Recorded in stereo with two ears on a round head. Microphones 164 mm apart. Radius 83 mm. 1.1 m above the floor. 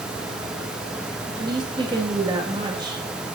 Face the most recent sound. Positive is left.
turn(degrees=-25)  # may be behind; listen again after turning